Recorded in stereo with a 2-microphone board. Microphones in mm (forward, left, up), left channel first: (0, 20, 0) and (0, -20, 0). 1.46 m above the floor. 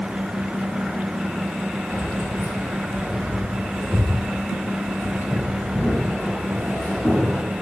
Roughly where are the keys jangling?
Left.